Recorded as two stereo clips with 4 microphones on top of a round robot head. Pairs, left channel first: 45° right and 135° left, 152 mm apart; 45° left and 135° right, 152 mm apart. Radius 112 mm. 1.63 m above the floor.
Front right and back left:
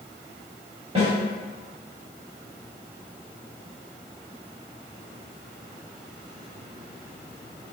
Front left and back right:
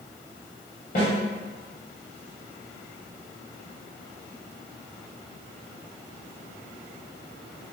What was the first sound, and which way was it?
A snare drum, 80° left.